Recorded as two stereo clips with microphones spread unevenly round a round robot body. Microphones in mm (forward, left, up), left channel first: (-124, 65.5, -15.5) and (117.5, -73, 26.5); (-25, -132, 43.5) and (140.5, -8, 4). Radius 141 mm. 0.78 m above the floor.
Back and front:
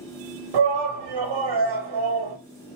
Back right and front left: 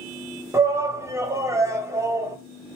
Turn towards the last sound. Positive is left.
turn(degrees=-35)